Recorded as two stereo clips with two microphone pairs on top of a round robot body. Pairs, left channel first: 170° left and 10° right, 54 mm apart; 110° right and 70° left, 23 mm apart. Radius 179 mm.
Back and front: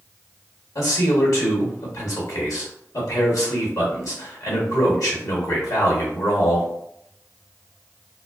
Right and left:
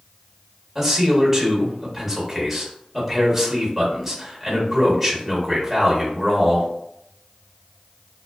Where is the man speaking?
155° left, 1.0 m.